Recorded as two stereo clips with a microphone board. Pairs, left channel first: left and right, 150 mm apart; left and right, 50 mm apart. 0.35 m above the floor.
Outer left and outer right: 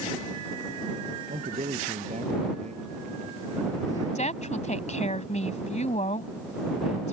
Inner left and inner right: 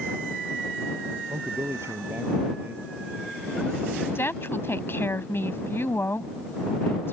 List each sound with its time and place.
1.3 s a man speaking: 55° right (ahead or behind); by 3.4 s 45° right (ahead or behind)
4.2 s a woman speaking: 50° left (ahead or behind)